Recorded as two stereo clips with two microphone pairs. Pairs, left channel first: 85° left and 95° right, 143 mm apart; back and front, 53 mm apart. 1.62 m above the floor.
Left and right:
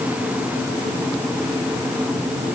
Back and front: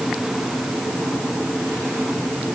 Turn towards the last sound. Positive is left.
No sound to turn to.